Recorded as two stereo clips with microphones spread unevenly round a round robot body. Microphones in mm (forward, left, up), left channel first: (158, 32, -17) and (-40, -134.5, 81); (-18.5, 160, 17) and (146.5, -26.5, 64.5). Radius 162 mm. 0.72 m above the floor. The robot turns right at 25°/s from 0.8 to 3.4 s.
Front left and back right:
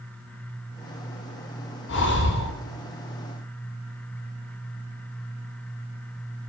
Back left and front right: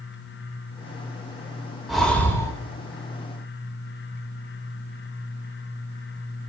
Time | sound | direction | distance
1.9 | breathing | 45° left | 1.8 m